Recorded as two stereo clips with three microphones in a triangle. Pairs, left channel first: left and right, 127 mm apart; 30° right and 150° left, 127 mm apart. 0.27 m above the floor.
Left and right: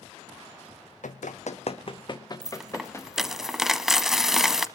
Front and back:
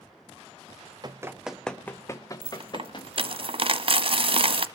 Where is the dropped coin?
175° right, 0.9 m.